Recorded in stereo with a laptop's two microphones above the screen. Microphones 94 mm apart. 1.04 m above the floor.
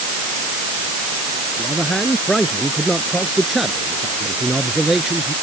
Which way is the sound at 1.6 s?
5° left (ahead or behind).